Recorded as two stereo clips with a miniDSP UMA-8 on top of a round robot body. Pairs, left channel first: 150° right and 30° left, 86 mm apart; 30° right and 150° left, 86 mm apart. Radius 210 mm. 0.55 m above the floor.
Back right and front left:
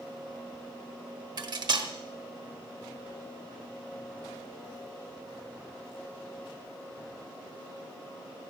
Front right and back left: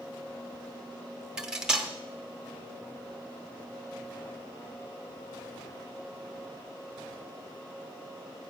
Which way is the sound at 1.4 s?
70° left.